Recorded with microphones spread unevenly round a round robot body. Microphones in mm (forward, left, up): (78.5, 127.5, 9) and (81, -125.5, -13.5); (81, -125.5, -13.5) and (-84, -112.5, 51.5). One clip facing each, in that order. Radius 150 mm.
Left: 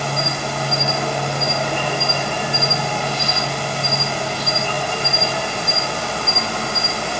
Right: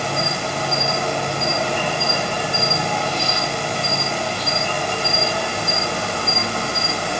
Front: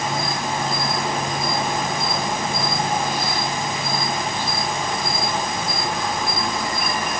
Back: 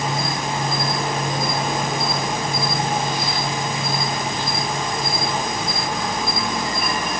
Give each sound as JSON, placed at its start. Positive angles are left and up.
{"t": 0.0, "sound": "an insect", "azimuth_deg": -35, "distance_m": 1.8}